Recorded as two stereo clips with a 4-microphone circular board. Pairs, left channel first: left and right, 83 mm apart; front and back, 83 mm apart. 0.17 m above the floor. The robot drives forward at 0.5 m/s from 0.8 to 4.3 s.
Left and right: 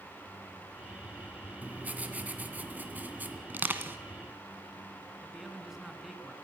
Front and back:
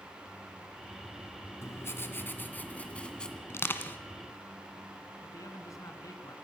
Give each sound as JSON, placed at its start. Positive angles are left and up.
{"t": 1.6, "sound": "writing", "azimuth_deg": -30, "distance_m": 2.0}
{"t": 3.5, "sound": "crushing", "azimuth_deg": -35, "distance_m": 1.5}
{"t": 5.2, "sound": "a man speaking", "azimuth_deg": -5, "distance_m": 2.0}